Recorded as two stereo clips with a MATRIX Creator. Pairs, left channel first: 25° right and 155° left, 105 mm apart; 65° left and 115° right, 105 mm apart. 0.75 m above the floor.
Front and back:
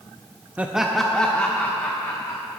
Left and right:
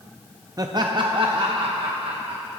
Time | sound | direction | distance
0.6 | laughter | 135° right | 0.6 m